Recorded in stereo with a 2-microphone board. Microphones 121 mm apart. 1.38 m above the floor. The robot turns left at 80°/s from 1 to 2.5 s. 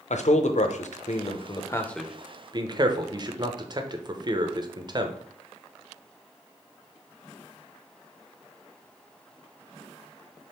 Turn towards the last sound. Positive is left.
turn(degrees=-35)  # may be behind; listen again after turning